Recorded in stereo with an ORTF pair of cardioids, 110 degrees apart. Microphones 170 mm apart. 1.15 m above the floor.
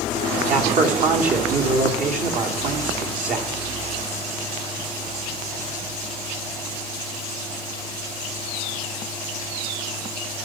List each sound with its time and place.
0.5 s a man speaking: 50° right, 2.5 m